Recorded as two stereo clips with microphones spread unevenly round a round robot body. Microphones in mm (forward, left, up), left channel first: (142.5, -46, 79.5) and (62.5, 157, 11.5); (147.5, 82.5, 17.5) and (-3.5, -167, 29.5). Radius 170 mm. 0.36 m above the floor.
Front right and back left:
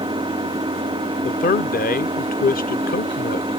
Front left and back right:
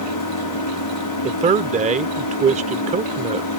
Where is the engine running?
45° left.